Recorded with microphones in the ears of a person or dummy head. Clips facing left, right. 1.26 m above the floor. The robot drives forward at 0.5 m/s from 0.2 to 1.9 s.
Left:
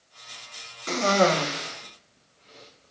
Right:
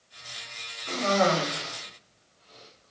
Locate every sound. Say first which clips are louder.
0.9 s a cough: left 3 dB; 60° left (ahead or behind), 0.5 m; by 2.9 s 30° left (ahead or behind), 0.9 m